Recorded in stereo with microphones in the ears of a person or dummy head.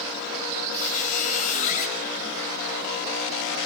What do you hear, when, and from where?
0.7 s a squeak: 35° left (ahead or behind), 5.5 m